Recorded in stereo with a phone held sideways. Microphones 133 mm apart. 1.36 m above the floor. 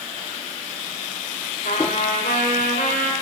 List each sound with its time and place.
1.6 s a trumpet: 80° left, 3 m